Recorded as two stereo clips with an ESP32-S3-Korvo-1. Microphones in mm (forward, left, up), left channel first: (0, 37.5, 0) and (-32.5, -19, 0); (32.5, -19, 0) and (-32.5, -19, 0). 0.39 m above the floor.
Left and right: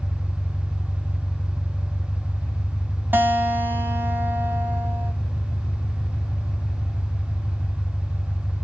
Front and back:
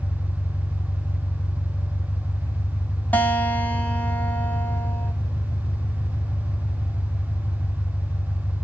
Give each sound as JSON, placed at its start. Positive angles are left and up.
{"t": 0.0, "sound": "an engine running", "azimuth_deg": -5, "distance_m": 1.5}
{"t": 3.1, "sound": "a guitar", "azimuth_deg": -65, "distance_m": 0.9}